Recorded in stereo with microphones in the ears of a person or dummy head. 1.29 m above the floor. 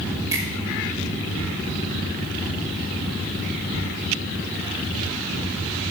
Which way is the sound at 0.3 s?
15° right (ahead or behind).